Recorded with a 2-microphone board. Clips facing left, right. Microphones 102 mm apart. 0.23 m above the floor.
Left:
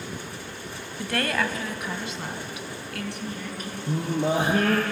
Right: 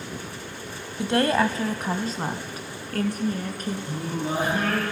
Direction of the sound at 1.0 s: 25° right (ahead or behind).